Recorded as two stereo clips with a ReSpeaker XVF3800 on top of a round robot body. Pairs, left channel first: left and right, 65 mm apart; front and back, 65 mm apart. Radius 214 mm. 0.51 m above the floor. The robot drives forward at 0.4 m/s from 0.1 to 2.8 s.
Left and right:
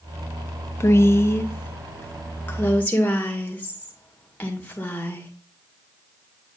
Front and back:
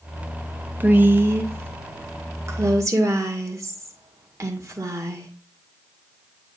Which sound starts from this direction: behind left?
A woman speaking, at 0.8 s.